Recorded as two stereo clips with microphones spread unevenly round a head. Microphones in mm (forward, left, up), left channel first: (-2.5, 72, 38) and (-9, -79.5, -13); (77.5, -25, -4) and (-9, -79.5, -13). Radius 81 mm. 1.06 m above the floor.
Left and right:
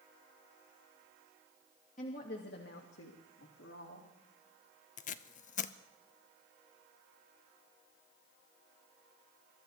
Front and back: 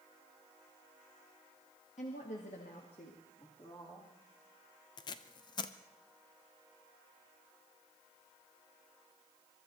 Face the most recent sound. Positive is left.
turn(degrees=50)